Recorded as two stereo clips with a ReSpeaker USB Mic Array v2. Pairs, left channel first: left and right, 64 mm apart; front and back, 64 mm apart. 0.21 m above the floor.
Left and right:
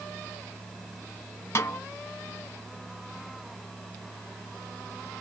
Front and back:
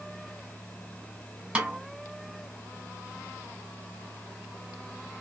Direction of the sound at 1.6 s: 115° left.